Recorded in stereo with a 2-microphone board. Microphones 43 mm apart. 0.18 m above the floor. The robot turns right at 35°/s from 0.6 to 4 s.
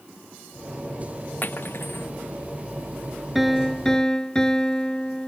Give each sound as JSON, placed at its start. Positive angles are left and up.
{"t": 1.4, "sound": "cutlery clinking", "side_deg": 45}
{"t": 3.4, "sound": "a piano", "side_deg": -5}